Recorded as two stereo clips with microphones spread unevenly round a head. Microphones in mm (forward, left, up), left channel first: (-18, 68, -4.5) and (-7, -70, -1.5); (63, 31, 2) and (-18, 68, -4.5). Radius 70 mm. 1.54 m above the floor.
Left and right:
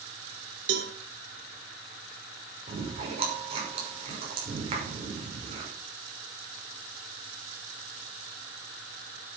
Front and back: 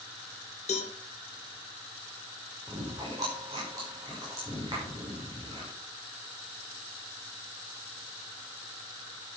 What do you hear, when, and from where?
0.7 s a cowbell: 70° right, 2 m
2.7 s chewing: 135° right, 5.5 m